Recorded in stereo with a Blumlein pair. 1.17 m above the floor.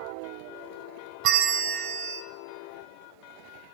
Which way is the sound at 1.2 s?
40° right.